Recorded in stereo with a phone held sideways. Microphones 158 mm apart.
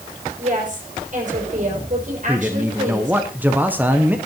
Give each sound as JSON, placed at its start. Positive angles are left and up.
{"t": 0.4, "sound": "a woman speaking", "side_deg": -50, "distance_m": 6.5}
{"t": 2.3, "sound": "a man speaking", "side_deg": -10, "distance_m": 1.1}